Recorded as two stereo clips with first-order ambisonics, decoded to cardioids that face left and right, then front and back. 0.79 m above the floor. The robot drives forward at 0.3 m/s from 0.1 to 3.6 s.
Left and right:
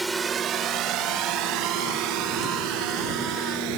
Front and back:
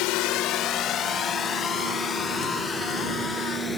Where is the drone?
10° right; by 3.8 s 80° right.